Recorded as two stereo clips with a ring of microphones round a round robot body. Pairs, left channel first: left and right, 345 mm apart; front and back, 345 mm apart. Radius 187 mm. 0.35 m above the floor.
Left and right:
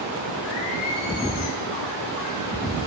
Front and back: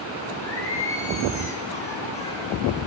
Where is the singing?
80° left, 9 m.